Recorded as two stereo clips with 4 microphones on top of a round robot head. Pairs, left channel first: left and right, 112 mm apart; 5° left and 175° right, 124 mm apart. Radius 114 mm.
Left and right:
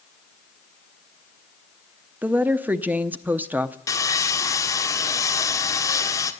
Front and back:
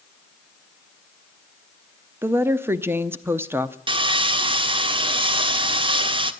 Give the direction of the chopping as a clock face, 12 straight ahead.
I don't hear chopping.